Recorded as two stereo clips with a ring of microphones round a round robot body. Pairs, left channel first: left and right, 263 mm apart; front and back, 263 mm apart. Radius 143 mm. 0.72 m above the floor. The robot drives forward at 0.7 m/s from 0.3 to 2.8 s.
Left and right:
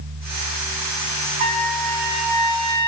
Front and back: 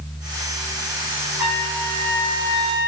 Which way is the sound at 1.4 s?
105° right.